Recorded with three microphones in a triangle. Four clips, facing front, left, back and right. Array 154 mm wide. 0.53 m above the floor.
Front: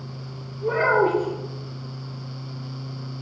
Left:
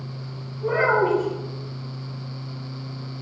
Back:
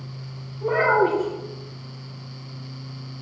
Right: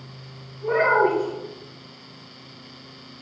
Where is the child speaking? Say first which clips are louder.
Right 1 dB, back 1 dB; 175° left, 4 m.